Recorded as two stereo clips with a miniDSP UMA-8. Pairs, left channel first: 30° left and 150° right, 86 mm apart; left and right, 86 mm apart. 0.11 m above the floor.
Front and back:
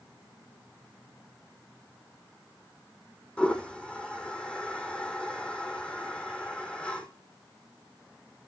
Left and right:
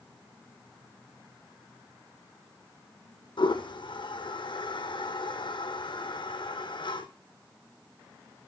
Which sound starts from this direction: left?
A toilet flushing, at 3.4 s.